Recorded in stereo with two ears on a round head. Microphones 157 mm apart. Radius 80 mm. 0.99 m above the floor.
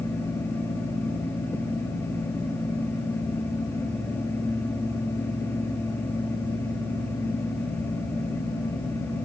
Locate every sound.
Only background noise.